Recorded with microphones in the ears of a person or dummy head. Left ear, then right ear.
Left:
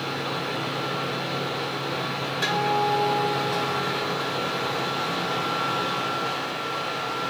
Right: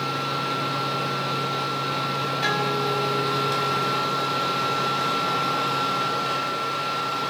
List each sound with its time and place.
0.0 s a machine running: 50° right (ahead or behind), 1.0 m
2.4 s a guitar: 40° left (ahead or behind), 1.7 m